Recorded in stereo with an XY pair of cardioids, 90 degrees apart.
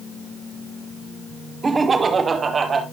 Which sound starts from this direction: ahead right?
Laughter, at 1.6 s.